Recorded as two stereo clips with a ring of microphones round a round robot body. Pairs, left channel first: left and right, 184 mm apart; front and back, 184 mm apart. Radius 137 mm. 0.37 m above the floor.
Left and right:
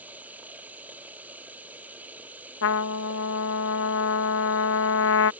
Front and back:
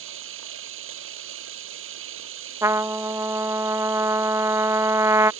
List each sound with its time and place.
0.0 s running water: 175° right
2.6 s a trumpet: 105° left